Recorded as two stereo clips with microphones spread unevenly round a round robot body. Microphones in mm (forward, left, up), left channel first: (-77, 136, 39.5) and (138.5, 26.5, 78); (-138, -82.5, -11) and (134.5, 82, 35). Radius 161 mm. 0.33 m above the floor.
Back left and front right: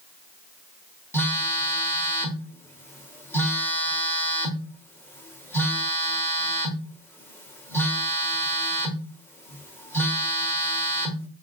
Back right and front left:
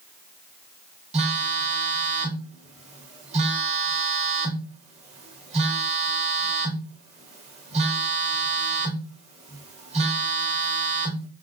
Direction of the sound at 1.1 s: 100° left.